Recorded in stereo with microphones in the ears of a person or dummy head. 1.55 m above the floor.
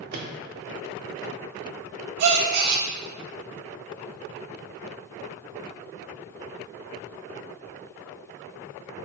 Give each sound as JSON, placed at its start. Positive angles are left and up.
{"t": 0.1, "sound": "a microwave", "side_deg": -55, "distance_m": 0.5}
{"t": 2.2, "sound": "a gasp", "side_deg": -55, "distance_m": 0.5}